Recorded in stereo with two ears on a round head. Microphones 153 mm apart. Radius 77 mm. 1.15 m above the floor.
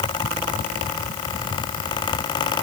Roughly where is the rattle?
I don't hear a rattle.